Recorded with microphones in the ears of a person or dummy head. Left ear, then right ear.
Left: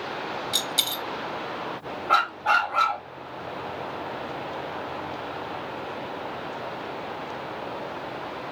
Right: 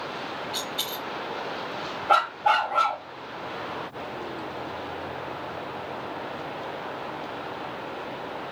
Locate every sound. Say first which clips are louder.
0.5 s a dropped coin: left 7 dB; 40° left (ahead or behind), 1.1 m
2.1 s a dog barking: even; 35° right (ahead or behind), 1.5 m